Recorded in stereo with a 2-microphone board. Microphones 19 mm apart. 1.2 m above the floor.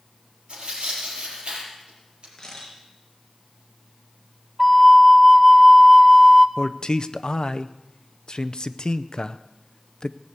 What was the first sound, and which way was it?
Tearing paper, 65° right (ahead or behind).